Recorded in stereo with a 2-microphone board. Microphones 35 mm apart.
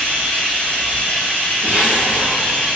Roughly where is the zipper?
Right.